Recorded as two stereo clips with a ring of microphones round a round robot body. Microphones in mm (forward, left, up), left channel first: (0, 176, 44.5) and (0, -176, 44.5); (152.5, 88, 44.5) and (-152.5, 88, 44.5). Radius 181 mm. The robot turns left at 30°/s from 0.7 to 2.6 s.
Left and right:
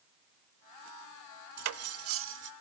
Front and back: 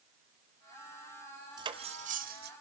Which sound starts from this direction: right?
Cutlery clinking, at 1.6 s.